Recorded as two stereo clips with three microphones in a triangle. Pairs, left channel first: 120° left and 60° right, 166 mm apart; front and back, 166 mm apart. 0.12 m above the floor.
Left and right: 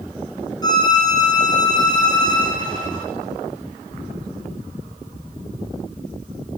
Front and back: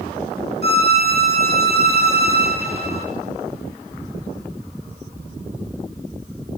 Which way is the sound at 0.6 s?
175° right.